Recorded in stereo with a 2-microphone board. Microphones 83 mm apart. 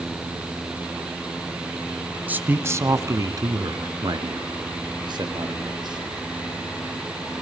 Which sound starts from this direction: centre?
A man speaking, at 2.3 s.